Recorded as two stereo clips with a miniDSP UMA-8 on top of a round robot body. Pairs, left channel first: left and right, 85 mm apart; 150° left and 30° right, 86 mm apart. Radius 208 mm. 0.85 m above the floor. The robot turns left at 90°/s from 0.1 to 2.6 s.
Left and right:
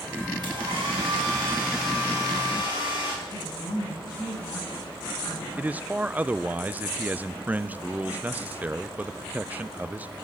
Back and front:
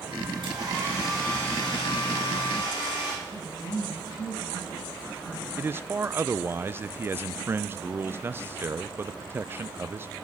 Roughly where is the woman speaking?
Behind left.